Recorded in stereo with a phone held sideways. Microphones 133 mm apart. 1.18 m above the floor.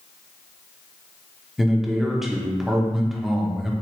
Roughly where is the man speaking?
Centre.